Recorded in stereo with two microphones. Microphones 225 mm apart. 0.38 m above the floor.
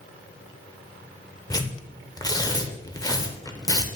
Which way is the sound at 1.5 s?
15° left (ahead or behind).